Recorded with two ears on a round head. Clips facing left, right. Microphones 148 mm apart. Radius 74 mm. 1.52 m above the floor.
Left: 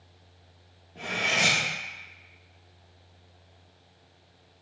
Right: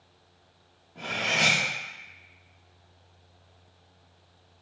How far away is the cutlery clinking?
About 1.4 m.